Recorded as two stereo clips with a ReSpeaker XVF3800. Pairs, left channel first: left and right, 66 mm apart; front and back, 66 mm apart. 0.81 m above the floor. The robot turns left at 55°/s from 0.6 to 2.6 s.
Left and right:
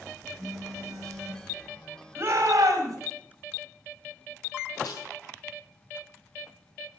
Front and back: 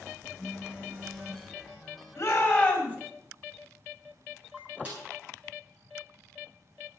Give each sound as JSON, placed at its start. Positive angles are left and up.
{"t": 0.4, "sound": "a phone buzzing", "azimuth_deg": -100, "distance_m": 2.5}
{"t": 2.2, "sound": "a shout", "azimuth_deg": -35, "distance_m": 4.5}
{"t": 4.8, "sound": "a snare drum", "azimuth_deg": 115, "distance_m": 9.0}